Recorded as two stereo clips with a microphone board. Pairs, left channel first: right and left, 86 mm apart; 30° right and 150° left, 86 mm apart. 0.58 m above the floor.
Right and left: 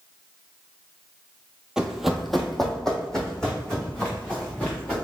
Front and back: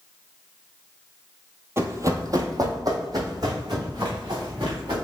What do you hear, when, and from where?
1.8 s running footsteps: 165° left, 0.6 m; by 5.0 s 170° right, 2.5 m